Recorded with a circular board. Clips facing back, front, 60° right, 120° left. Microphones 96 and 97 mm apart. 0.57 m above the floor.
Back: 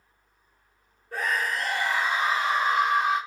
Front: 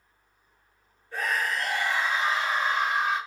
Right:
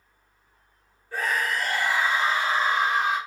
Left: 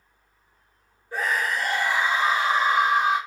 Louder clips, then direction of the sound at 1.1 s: Back 1 dB, left 1 dB; 170° right.